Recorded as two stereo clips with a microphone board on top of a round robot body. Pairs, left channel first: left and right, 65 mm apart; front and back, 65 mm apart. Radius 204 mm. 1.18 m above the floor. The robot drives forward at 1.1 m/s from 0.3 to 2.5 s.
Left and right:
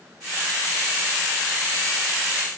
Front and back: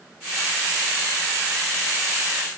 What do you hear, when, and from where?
Only background noise.